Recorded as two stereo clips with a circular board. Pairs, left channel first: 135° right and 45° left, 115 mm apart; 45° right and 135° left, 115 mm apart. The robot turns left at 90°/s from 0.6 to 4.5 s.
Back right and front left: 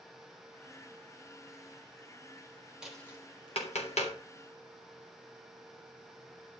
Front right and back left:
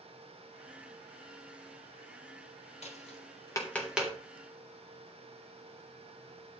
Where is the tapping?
40° right, 3.5 m; by 4.1 s 160° right, 3.5 m.